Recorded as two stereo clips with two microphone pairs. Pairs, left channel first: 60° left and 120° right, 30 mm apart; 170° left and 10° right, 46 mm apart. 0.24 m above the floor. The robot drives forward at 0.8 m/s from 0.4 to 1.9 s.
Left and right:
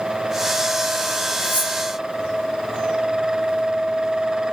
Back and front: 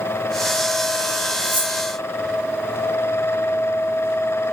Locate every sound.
1.4 s cutlery clinking: 45° left, 8 m